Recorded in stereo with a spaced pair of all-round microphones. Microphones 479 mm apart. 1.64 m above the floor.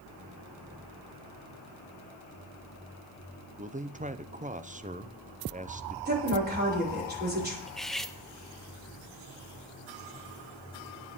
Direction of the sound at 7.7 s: Centre (ahead or behind).